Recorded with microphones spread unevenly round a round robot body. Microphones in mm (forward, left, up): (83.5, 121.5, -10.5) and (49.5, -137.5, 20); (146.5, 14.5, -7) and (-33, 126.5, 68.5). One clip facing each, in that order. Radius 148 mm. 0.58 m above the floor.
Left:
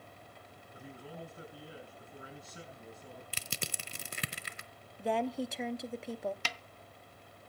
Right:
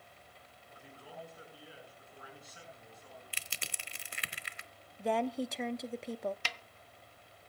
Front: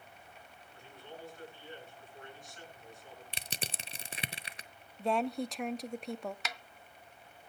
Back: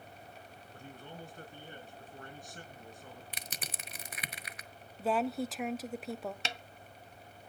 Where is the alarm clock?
I don't hear an alarm clock.